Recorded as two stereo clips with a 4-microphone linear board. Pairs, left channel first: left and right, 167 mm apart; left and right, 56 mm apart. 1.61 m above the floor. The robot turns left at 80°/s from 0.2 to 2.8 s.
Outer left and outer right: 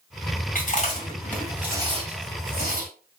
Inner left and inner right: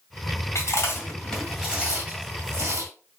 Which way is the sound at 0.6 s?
55° left (ahead or behind).